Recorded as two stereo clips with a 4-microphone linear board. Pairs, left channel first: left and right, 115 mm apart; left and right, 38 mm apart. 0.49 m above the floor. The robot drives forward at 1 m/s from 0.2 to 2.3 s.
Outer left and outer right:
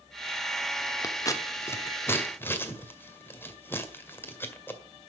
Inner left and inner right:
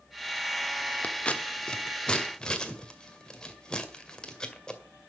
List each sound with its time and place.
1.0 s scissors: 35° left (ahead or behind), 1.1 m; by 4.8 s 20° left (ahead or behind), 1.9 m